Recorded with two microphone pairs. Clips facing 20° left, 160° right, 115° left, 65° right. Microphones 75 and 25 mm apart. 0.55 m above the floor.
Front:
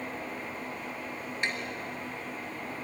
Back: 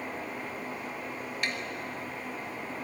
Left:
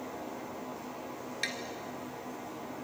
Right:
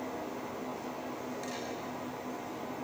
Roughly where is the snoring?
I don't hear snoring.